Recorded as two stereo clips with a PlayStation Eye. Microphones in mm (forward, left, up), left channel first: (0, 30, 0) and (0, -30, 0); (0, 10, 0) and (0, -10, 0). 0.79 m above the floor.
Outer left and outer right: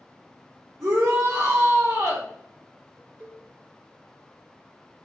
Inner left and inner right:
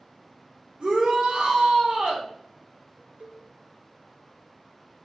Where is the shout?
75° right (ahead or behind), 2 m.